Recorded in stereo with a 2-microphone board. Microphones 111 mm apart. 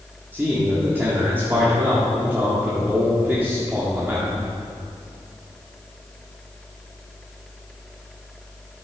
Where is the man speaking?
20° right (ahead or behind), 1.7 m.